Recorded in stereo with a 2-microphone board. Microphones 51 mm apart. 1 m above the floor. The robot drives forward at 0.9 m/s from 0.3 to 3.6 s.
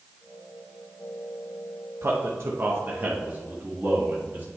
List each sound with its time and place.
2.0 s a man speaking: 60° right (ahead or behind), 0.9 m; by 4.5 s 25° right (ahead or behind), 1.7 m